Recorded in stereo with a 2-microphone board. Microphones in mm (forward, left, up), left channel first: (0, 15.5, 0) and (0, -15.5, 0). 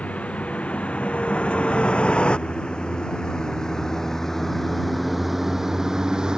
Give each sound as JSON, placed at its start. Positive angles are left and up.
{"t": 0.0, "sound": "a vehicle", "side_deg": 45}